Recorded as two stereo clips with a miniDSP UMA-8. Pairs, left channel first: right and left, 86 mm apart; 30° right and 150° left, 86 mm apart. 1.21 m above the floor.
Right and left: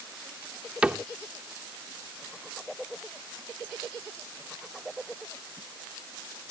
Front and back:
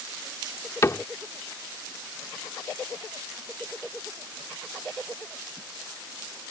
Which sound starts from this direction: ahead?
A cupboard door, at 0.8 s.